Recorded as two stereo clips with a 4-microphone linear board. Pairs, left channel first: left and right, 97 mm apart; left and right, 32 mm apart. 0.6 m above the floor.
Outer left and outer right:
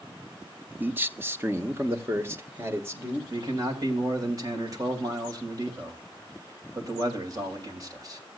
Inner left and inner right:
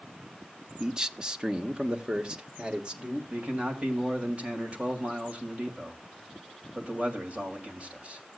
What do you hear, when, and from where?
0.8 s a man speaking: 20° right (ahead or behind), 0.7 m; by 3.2 s 25° right (ahead or behind), 2 m
3.3 s a man speaking: 35° right (ahead or behind), 3 m